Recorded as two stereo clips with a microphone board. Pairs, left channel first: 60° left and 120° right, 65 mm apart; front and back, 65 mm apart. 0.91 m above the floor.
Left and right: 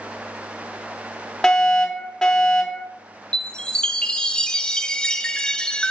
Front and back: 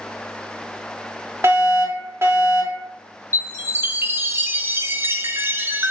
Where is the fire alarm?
140° left, 5 m.